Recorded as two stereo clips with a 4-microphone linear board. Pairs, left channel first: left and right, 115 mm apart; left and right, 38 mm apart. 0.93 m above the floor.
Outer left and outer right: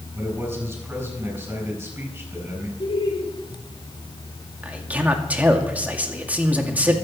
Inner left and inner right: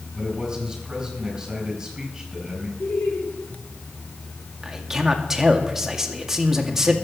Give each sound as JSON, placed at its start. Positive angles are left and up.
{"t": 0.1, "sound": "a man speaking", "side_deg": -15, "distance_m": 4.5}
{"t": 2.8, "sound": "laughter", "side_deg": 50, "distance_m": 4.0}
{"t": 4.6, "sound": "a man speaking", "side_deg": -15, "distance_m": 2.0}